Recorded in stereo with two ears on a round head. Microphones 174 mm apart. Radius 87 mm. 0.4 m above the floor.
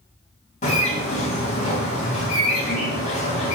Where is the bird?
35° left (ahead or behind), 3.5 m.